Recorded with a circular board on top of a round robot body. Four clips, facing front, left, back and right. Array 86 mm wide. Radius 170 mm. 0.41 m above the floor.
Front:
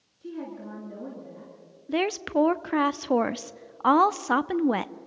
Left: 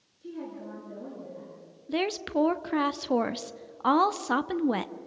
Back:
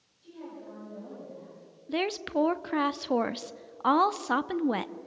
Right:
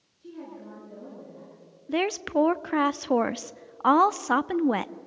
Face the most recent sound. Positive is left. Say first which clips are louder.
# right 3 dB, front 4 dB
turn(degrees=-55)